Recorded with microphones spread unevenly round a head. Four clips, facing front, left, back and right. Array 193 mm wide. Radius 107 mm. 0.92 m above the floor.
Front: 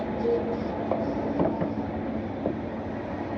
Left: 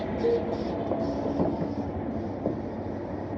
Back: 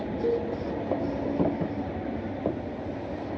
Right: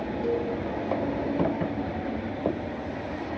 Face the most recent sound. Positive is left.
turn(degrees=140)